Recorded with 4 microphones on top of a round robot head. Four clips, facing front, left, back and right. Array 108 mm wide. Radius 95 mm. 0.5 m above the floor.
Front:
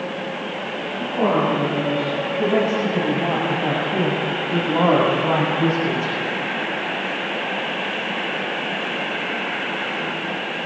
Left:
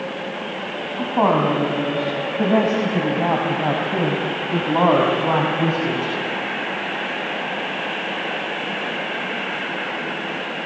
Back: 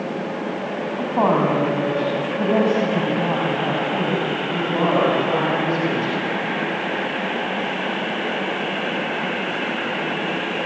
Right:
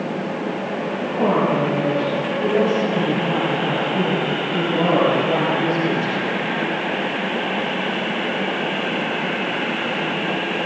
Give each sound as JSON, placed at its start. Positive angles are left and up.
{"t": 1.0, "sound": "a woman speaking", "azimuth_deg": 130, "distance_m": 4.5}